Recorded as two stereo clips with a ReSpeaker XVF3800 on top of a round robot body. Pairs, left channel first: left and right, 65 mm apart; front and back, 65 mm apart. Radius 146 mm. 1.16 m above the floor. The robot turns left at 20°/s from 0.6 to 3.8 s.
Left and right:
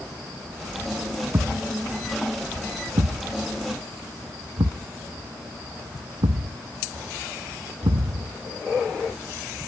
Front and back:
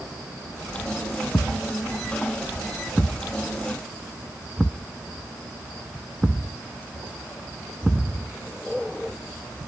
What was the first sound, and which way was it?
A thud, 50° right.